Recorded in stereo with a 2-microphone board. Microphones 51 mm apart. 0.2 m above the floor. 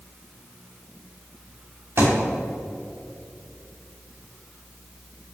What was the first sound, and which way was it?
A thud, 50° right (ahead or behind).